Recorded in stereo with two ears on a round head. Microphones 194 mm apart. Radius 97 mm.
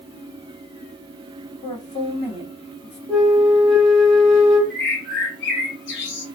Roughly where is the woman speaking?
Left.